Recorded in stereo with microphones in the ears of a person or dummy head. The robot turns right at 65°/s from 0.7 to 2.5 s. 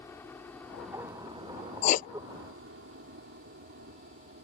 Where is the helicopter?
5° left (ahead or behind); by 4.4 s 60° right (ahead or behind).